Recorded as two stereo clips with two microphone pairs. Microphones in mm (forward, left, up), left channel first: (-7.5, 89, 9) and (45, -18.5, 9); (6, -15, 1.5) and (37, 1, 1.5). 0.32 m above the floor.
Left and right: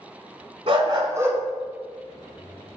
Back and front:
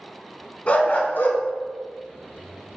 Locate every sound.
0.7 s a dog barking: 100° right, 0.7 m; by 2.8 s 175° left, 1.3 m